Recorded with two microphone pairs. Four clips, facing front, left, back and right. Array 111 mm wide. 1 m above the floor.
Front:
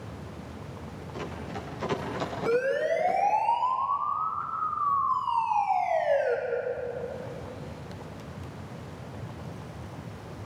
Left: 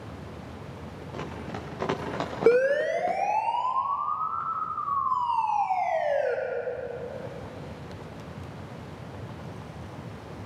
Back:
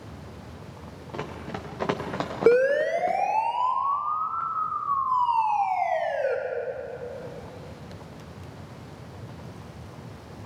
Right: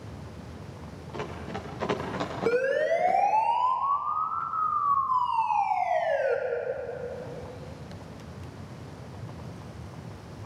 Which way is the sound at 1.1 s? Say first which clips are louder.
Right 1 dB, back 3 dB; 170° left.